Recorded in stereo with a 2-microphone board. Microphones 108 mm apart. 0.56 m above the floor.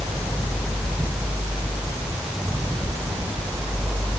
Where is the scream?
No scream in this recording.